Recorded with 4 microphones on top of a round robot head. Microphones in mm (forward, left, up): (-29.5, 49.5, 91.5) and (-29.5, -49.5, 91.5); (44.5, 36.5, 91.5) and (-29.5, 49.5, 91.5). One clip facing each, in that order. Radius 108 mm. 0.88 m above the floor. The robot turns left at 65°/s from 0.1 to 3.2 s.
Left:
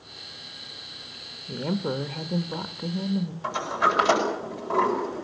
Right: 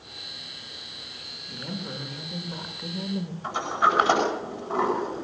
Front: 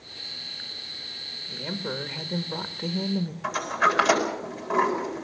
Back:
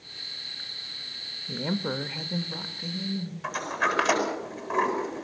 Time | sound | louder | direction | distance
1.5 | a woman speaking | left 8 dB, back 3 dB | 125° left | 1.4 m
3.4 | a sliding door | right 2 dB, front 4 dB | 80° left | 8.5 m